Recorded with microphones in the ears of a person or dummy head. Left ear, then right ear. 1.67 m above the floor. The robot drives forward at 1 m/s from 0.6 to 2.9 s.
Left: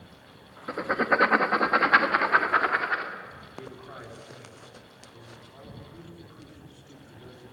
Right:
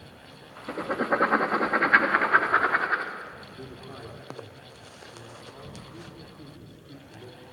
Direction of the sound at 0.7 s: 20° left (ahead or behind).